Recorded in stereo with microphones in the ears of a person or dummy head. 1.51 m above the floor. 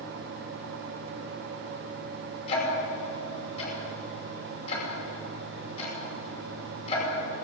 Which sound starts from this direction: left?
Ticking, at 2.5 s.